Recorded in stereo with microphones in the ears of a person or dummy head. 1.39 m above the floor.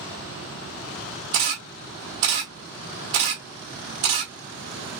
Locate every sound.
1.3 s a camera shutter: 25° right (ahead or behind), 1.0 m